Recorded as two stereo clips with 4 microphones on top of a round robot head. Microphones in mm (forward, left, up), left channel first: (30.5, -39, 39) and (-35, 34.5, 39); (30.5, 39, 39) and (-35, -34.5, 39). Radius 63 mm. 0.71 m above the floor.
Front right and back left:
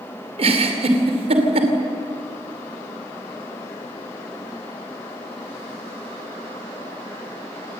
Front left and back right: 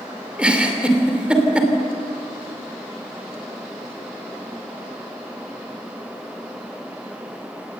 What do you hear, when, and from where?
0.4 s a giggle: 150° left, 3 m